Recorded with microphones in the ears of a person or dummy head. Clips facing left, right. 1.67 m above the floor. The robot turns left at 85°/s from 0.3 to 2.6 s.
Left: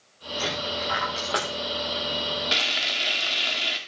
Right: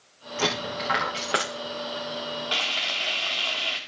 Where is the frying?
30° left (ahead or behind), 2.5 m; by 3.8 s 25° left (ahead or behind), 2.5 m.